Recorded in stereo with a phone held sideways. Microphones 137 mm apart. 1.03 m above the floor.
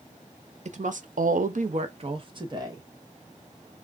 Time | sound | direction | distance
0.7 | a woman speaking | 55° right (ahead or behind) | 0.7 m